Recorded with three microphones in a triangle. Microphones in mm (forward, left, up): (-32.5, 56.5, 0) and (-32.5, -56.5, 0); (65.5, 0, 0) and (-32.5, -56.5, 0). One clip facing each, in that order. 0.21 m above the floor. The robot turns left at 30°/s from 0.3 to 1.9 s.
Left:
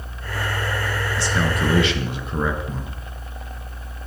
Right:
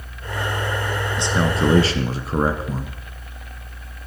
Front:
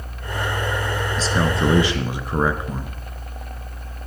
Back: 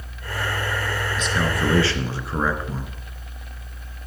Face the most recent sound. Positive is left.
turn(degrees=-40)